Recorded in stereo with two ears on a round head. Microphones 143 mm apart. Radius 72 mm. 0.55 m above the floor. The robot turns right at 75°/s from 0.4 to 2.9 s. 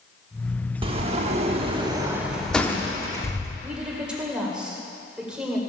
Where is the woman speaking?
5° right (ahead or behind), 2 m.